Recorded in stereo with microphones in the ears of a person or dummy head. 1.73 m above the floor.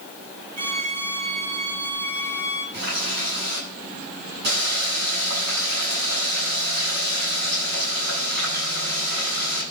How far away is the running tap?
About 9.5 m.